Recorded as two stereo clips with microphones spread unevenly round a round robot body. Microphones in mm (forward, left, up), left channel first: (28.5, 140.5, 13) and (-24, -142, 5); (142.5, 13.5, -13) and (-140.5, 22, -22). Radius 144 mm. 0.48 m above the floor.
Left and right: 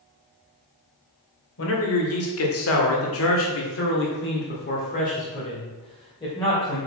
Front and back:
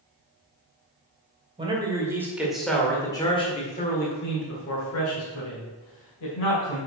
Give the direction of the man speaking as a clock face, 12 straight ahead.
8 o'clock.